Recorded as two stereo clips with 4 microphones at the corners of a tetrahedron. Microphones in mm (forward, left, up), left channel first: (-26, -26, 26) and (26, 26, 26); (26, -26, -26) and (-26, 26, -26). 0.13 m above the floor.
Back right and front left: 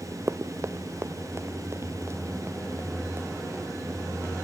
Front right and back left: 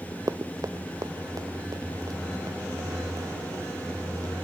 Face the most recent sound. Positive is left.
turn(degrees=100)